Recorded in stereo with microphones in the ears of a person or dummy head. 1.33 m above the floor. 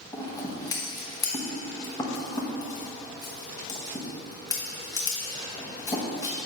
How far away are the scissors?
About 1.2 m.